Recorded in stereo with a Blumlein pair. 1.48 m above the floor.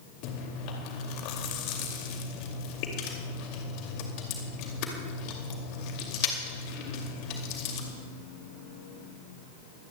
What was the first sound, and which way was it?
Chewing, 40° left.